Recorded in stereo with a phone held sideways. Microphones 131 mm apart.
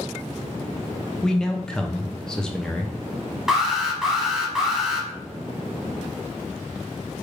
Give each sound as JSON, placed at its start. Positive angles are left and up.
{"t": 1.2, "sound": "a man speaking", "side_deg": 5, "distance_m": 0.5}
{"t": 3.5, "sound": "an alarm", "side_deg": -5, "distance_m": 0.9}